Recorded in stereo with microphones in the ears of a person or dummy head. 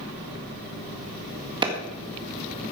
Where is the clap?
25° right (ahead or behind), 2 m.